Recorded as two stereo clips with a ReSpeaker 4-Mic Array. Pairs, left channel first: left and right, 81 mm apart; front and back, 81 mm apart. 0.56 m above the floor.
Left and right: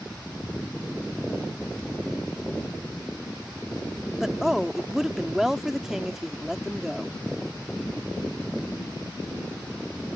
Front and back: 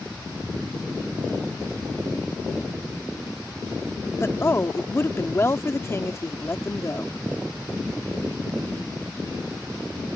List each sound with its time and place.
4.2 s a woman speaking: 10° right